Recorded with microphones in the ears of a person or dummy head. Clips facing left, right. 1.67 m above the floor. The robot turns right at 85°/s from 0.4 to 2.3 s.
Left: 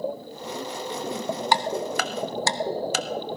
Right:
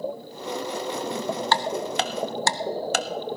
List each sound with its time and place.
1.5 s ticking: 20° left (ahead or behind), 0.7 m; by 3.4 s 50° right (ahead or behind), 0.7 m